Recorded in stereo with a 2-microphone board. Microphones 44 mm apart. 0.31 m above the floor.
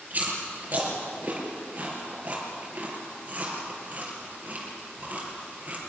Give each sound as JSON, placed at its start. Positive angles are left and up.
{"t": 0.1, "sound": "chewing", "side_deg": -35, "distance_m": 5.0}